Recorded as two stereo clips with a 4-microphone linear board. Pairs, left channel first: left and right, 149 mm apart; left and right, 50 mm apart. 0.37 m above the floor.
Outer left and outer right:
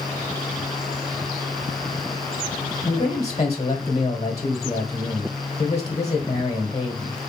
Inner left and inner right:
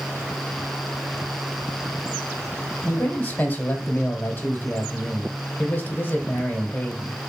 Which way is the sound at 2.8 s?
45° left (ahead or behind).